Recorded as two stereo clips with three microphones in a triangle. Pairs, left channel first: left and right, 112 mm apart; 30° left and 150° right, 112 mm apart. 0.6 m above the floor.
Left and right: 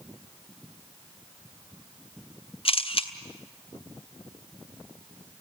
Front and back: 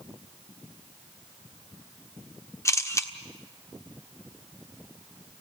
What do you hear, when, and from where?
2.6 s a camera shutter: 85° left, 1.3 m